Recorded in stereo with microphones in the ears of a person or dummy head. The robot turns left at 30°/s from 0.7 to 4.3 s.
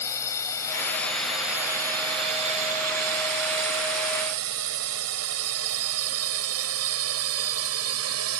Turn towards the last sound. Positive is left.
turn(degrees=-80)